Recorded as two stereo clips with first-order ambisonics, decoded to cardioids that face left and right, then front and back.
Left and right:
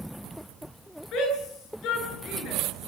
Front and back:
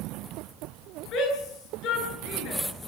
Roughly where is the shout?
Ahead left.